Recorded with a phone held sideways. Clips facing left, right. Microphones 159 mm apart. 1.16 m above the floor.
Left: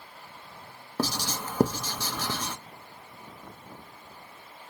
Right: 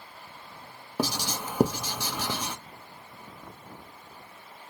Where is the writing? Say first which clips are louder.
Even; 10° right (ahead or behind), 0.6 m.